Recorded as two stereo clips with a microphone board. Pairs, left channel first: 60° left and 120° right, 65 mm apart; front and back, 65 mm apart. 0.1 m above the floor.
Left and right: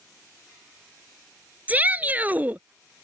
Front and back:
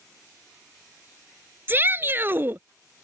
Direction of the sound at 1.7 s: 165° right.